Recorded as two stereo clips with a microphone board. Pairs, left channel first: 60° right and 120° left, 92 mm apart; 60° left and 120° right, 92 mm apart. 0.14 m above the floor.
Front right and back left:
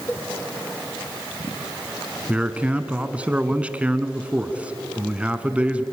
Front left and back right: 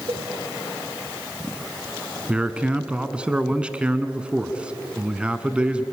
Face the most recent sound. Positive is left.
turn(degrees=180)